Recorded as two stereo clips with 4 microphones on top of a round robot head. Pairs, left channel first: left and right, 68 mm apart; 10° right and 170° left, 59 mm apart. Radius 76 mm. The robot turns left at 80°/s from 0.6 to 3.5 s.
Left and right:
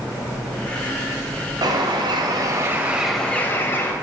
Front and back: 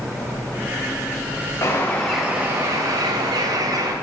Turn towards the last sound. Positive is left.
turn(degrees=150)